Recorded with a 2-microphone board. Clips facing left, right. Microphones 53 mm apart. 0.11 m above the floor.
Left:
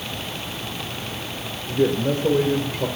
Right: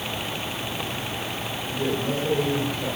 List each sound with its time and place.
1.7 s a man speaking: 45° left (ahead or behind), 2 m